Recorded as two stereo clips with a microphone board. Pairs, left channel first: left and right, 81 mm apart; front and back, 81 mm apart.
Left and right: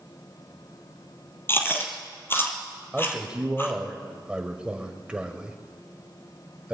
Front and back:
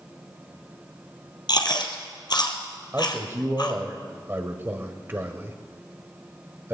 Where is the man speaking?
155° right, 1.4 m.